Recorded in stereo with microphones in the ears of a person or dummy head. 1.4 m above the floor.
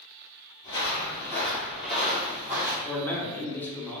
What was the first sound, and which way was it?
Footsteps, 30° left (ahead or behind).